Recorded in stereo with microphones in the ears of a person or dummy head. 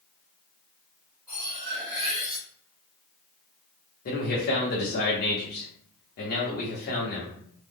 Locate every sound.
1.3 s cutlery clinking: 5° left (ahead or behind), 0.8 m
4.0 s a man speaking: 50° left (ahead or behind), 1.0 m